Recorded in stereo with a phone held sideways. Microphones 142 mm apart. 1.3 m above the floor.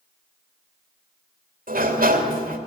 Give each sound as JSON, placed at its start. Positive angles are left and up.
{"t": 1.7, "sound": "a sliding door", "side_deg": -80, "distance_m": 3.0}